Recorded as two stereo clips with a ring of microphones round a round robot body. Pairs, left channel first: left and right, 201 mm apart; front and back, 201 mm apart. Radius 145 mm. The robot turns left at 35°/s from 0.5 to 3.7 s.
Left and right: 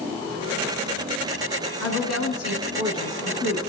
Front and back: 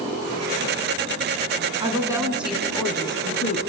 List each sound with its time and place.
1.8 s a woman speaking: 115° left, 6.5 m; by 3.6 s 55° left, 6.5 m